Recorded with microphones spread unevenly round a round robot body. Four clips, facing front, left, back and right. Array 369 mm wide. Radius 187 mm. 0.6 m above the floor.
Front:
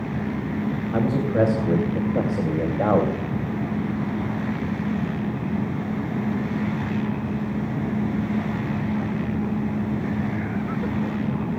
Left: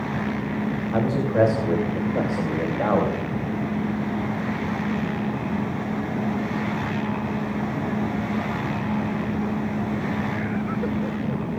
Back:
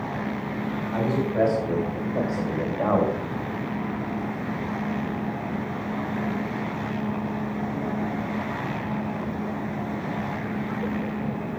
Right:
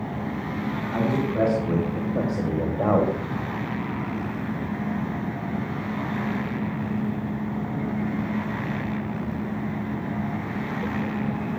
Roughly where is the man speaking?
Ahead.